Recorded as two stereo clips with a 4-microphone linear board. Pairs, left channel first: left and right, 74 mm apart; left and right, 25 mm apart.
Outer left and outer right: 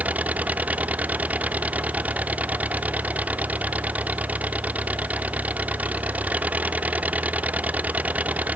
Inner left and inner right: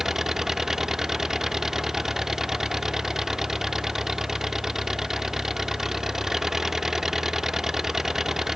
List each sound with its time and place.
0.0 s an engine running: 20° right (ahead or behind)